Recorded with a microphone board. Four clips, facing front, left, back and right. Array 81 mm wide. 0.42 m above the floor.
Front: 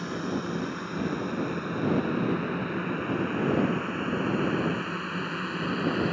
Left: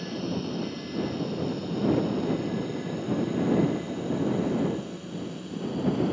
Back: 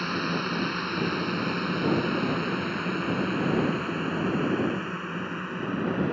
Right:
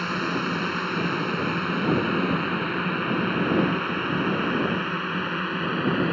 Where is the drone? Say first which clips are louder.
Right 5 dB, back 2 dB; 115° right; by 6.1 s 80° right.